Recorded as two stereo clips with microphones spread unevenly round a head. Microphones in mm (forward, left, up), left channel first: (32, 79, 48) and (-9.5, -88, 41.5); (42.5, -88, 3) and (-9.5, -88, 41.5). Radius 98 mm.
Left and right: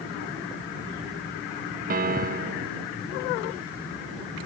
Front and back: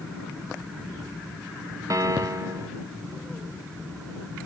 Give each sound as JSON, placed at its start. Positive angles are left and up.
{"t": 1.9, "sound": "a piano", "azimuth_deg": -135}